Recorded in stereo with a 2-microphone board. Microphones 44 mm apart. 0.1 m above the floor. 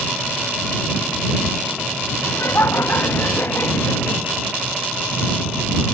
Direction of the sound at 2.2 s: 65° left (ahead or behind).